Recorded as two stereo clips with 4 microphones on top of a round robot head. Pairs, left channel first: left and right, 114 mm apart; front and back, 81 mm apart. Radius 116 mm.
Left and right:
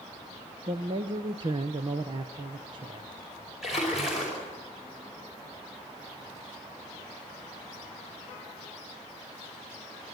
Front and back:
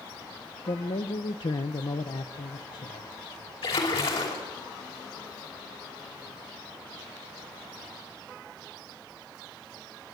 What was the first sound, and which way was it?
A man speaking, 40° right.